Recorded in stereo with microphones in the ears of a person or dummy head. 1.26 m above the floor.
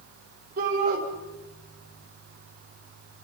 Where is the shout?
55° right (ahead or behind), 5 m.